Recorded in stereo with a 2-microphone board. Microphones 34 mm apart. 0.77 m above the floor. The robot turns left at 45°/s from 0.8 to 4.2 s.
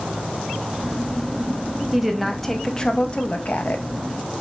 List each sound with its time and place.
1.9 s a woman speaking: 170° right, 0.6 m; by 3.8 s 105° left, 0.6 m